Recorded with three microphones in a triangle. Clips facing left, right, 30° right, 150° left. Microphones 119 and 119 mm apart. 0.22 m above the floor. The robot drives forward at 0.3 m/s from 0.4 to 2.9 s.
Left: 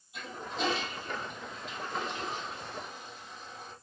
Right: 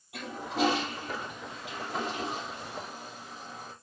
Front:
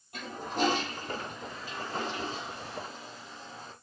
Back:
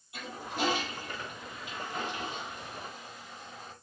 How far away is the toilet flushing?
About 4 m.